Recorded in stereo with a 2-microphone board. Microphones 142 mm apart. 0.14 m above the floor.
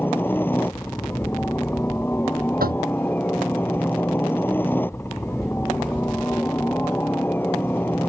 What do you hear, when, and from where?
0.0 s a helicopter: 15° left (ahead or behind)
2.6 s knocking: 75° right (ahead or behind)